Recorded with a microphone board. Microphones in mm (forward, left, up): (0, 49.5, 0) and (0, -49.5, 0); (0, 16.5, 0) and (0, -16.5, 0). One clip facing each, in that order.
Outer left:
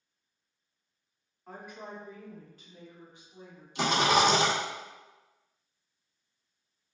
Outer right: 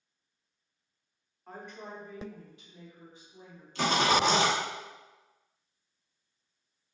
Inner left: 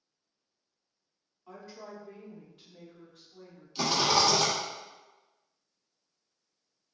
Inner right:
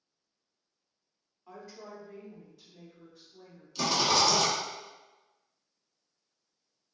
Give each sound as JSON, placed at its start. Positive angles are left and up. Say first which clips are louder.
{"t": 1.5, "sound": "a woman speaking", "louder": "even, inner left 1 dB", "side_deg": 0, "distance_m": 1.0}
{"t": 3.8, "sound": "a rattle", "louder": "outer left 1 dB, inner left 1 dB", "side_deg": 15, "distance_m": 1.0}